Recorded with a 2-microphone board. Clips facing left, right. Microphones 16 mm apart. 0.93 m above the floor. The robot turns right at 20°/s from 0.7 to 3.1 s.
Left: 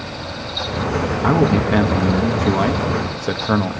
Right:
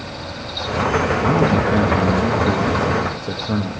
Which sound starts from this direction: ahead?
A man speaking, at 1.2 s.